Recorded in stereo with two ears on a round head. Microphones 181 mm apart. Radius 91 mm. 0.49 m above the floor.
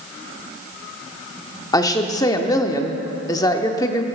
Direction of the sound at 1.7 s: 20° left (ahead or behind).